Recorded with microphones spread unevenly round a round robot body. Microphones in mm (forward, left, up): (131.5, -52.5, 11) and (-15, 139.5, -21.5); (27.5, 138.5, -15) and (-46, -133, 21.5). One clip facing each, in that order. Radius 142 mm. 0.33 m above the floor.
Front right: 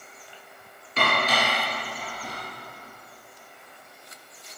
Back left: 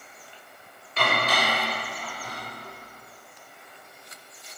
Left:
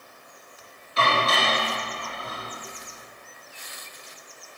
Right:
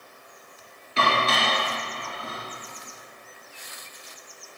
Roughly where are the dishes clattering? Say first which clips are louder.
Front right 1 dB, even; right.